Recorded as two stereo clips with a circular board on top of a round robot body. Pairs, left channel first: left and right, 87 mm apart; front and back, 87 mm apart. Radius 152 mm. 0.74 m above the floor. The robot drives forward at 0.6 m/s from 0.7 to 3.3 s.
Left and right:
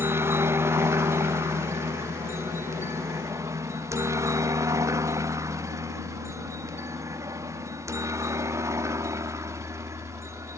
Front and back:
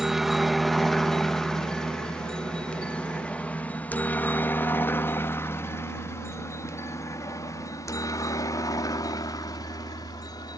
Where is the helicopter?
100° right; by 10.6 s 35° right.